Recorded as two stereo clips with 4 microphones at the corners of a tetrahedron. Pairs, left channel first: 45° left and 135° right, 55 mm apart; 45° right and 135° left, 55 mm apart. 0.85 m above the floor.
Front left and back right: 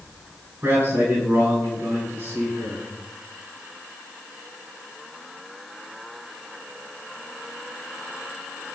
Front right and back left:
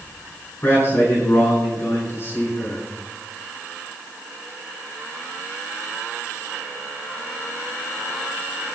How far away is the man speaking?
About 5.5 m.